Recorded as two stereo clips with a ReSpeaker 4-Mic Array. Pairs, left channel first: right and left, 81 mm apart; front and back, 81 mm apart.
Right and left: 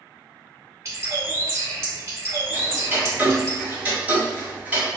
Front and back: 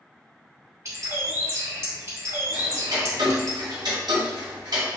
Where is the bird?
135° left, 1.8 m.